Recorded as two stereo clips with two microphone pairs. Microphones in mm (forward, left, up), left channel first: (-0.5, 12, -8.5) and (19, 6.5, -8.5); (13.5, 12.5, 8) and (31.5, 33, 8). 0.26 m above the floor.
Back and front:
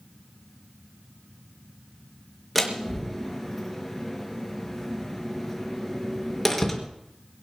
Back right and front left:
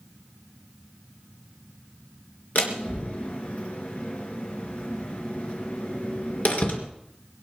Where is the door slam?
105° right, 3.5 m.